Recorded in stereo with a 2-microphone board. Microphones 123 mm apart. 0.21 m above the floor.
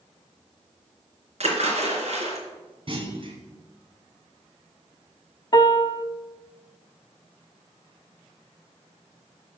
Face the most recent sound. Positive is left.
turn(degrees=40)  # may be behind; listen again after turning